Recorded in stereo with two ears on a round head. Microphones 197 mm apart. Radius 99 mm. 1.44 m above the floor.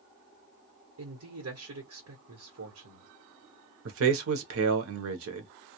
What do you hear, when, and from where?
1.0 s a man speaking: 70° right (ahead or behind), 1.1 m
3.9 s a man speaking: 70° right (ahead or behind), 0.8 m